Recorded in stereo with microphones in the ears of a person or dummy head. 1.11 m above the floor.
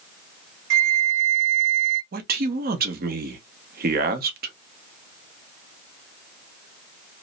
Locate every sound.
0.7 s a flute: 75° right (ahead or behind), 0.8 m
2.1 s a man speaking: 45° right (ahead or behind), 0.7 m